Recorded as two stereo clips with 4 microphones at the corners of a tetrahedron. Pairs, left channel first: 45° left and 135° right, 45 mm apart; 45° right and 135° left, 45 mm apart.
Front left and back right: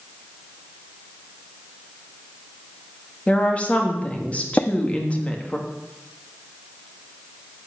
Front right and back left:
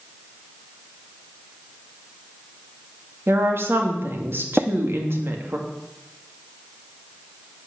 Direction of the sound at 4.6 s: 75° left.